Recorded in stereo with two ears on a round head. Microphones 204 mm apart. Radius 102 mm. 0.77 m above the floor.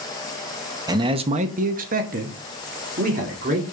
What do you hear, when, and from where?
0.9 s a man speaking: 15° right (ahead or behind), 0.9 m; by 3.6 s 35° right (ahead or behind), 2 m